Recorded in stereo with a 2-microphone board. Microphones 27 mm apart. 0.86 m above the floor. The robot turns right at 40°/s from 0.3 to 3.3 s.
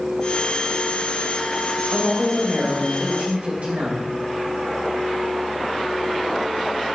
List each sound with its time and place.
1.9 s a woman speaking: straight behind, 3 m; by 4.1 s 125° right, 3 m